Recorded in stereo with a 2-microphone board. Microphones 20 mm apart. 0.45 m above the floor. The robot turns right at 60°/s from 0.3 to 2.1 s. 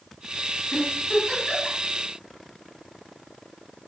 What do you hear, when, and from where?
0.7 s a giggle: 15° left (ahead or behind), 1.6 m; by 1.8 s 55° left (ahead or behind), 1.6 m